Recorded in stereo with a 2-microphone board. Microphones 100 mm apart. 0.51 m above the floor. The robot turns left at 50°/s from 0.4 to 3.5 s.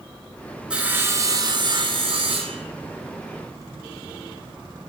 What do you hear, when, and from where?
0.7 s sawing: 10° right, 0.9 m; by 2.6 s 105° right, 0.9 m